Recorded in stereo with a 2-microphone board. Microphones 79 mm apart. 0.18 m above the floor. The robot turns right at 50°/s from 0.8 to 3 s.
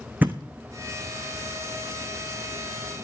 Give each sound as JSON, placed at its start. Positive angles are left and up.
{"t": 0.2, "sound": "a thud", "side_deg": -25, "distance_m": 0.7}